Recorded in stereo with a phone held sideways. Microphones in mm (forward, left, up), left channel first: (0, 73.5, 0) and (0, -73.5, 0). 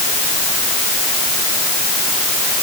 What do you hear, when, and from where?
Only background noise.